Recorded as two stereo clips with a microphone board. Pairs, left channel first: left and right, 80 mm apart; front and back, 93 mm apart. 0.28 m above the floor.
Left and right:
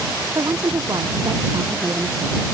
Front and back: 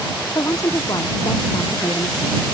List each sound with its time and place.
0.3 s a woman speaking: 50° right; by 2.4 s 45° right